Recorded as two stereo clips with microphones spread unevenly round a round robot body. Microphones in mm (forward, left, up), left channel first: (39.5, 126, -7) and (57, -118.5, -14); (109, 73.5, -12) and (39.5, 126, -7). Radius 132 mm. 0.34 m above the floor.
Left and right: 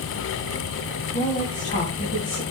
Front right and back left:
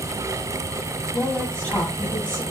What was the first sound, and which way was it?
A woman speaking, 35° left.